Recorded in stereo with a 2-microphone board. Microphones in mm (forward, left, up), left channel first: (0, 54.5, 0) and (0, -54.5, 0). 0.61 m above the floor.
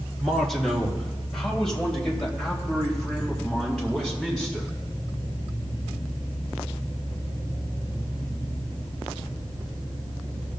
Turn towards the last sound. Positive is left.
turn(degrees=5)  # may be behind; listen again after turning